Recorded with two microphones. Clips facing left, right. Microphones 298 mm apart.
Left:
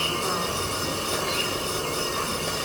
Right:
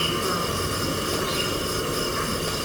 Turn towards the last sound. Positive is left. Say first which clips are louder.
# right 3 dB
turn(degrees=-20)  # may be behind; listen again after turning